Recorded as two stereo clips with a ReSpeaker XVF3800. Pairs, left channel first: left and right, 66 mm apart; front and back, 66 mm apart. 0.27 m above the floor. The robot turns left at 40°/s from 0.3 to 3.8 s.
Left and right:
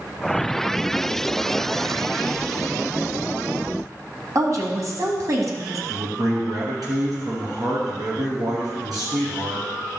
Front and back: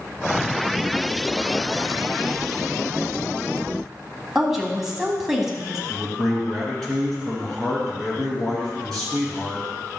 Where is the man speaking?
80° right, 3.5 m.